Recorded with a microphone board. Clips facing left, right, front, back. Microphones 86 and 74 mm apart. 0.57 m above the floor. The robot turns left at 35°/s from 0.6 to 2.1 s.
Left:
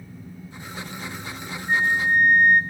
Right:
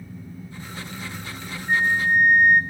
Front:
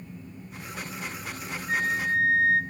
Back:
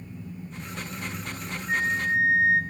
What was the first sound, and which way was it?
A flute, 145° right.